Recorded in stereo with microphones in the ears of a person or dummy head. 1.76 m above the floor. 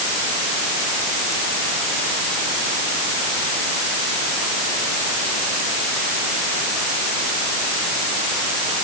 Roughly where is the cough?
I don't hear a cough.